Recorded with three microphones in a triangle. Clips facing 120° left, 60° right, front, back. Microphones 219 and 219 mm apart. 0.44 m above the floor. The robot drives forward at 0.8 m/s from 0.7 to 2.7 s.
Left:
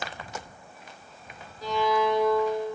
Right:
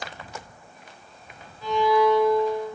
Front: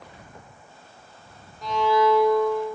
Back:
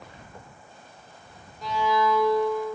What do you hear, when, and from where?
1.6 s a violin: 90° left, 0.7 m; by 2.7 s 150° left, 1.1 m